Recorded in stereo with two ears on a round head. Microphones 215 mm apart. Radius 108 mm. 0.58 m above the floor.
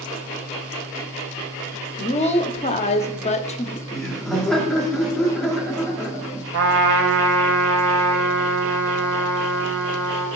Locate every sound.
2.0 s a woman speaking: 30° left (ahead or behind), 0.7 m
3.9 s laughter: centre (ahead or behind), 1.1 m
6.5 s a trumpet: 50° right (ahead or behind), 1.0 m